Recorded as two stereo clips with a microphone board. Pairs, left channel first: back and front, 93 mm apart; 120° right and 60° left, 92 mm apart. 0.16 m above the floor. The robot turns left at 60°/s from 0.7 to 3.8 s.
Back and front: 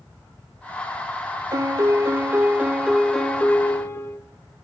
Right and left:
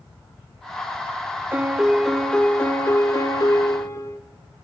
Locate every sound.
1.5 s a piano: straight ahead, 0.5 m; by 4.2 s 135° right, 0.5 m